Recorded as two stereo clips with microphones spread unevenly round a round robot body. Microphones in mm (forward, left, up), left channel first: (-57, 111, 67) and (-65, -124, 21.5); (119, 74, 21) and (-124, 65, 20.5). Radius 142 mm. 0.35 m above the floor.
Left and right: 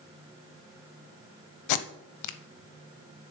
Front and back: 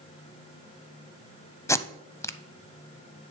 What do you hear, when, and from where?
1.7 s tape being pulled: 80° left, 0.6 m